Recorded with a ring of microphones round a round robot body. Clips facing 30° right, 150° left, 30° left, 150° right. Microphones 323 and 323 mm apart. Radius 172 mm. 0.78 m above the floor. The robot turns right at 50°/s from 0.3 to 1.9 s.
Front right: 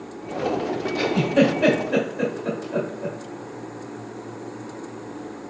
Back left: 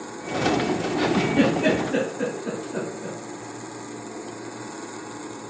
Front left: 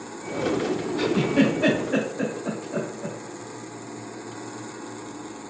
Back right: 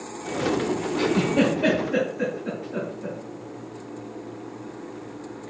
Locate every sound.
1.0 s a giggle: 50° right, 1.9 m; by 3.2 s 5° right, 1.9 m